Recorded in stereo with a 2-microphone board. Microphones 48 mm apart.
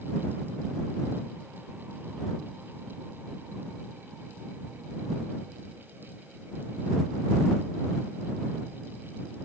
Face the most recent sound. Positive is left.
No sound to turn to.